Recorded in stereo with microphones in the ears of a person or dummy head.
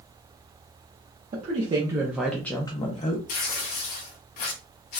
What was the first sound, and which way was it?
A woman speaking, 40° right (ahead or behind).